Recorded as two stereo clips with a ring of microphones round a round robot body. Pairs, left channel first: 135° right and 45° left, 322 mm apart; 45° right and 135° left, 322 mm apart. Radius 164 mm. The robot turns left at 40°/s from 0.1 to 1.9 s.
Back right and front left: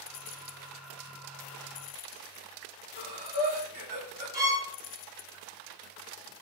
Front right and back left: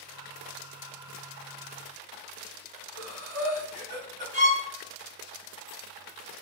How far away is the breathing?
About 1.8 m.